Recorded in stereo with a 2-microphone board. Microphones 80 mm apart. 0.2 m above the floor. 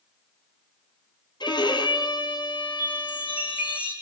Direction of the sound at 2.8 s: 15° right (ahead or behind).